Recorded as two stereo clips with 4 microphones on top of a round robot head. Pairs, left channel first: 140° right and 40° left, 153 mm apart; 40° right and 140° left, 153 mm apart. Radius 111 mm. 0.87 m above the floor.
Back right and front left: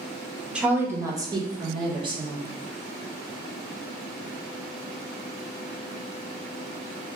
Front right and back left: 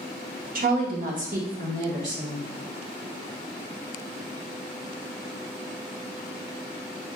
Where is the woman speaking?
125° left, 0.8 m; by 2.5 s 100° left, 1.9 m.